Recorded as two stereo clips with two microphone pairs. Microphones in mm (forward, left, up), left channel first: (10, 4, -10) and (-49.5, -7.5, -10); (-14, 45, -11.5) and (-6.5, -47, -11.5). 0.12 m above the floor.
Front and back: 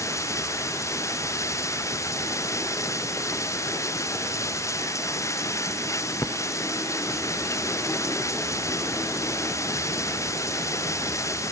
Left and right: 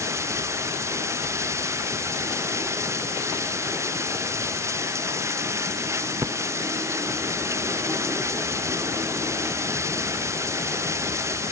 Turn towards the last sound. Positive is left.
turn(degrees=-25)